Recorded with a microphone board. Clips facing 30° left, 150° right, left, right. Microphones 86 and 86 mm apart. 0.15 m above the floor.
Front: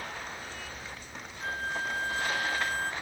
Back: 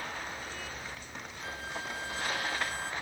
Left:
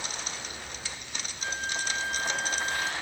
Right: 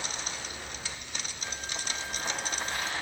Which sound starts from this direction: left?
A flute, at 1.4 s.